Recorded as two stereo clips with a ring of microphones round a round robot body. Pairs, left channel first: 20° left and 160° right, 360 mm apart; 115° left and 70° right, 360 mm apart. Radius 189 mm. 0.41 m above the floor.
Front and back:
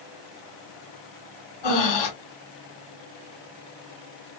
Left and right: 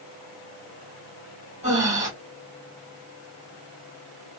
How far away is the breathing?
About 2.5 m.